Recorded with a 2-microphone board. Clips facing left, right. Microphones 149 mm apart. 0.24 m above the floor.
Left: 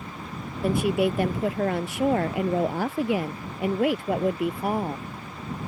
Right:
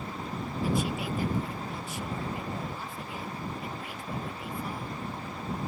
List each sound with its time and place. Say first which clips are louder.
0.6 s a woman speaking: left 9 dB; 60° left (ahead or behind); by 5.1 s 65° left (ahead or behind)